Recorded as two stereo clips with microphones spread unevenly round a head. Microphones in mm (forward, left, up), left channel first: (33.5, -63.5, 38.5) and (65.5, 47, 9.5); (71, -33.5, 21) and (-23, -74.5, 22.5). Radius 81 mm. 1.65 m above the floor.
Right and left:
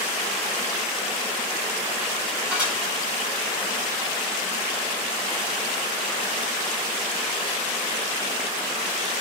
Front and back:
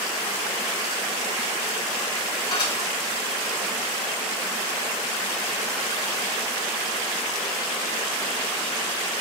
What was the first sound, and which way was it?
Dishes clattering, 10° right.